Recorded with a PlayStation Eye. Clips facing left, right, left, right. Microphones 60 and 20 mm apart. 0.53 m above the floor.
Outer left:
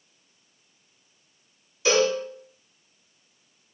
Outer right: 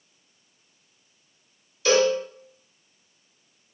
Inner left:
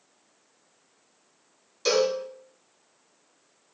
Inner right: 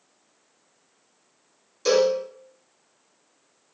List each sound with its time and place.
1.9 s a cowbell: 15° left (ahead or behind), 1.4 m